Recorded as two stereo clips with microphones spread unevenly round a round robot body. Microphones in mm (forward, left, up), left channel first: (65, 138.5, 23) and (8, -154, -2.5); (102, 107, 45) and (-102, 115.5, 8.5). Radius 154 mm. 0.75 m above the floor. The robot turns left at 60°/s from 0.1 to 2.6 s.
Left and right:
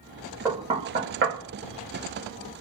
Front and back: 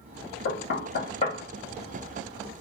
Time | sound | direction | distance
0.5 | knocking | 25° right | 0.9 m